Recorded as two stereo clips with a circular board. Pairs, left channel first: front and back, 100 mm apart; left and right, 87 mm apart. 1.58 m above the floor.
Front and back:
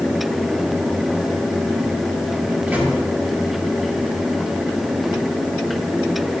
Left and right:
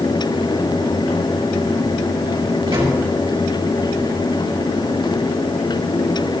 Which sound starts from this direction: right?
A microwave, at 2.7 s.